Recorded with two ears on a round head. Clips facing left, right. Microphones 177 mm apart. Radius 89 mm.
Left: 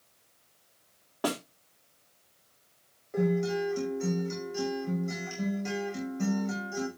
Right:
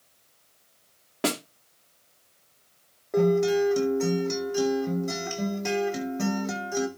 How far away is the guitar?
About 5.5 m.